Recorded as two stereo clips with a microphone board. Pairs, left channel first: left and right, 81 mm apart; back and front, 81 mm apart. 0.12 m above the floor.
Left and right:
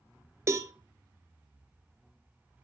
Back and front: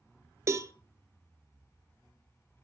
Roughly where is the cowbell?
Ahead right.